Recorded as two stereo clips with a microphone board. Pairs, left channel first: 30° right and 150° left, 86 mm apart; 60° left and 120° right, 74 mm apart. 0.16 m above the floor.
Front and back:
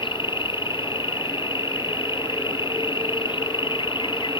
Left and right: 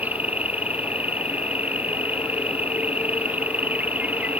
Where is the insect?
50° right.